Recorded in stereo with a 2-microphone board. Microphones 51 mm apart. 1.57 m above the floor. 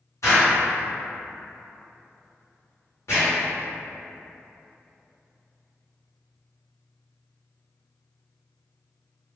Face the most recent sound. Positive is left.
turn(degrees=70)  # may be behind; listen again after turning